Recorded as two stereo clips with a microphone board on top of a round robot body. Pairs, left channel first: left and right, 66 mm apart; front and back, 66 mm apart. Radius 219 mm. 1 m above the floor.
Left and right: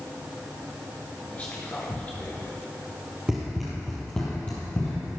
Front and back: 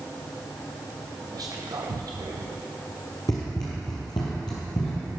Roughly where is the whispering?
Behind.